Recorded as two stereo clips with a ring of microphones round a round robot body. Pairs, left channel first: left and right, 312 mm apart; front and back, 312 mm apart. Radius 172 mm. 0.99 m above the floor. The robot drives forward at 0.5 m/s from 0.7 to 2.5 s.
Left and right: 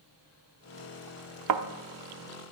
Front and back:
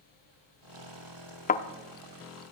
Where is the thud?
60° right, 0.8 m; by 1.6 s 65° right, 0.7 m.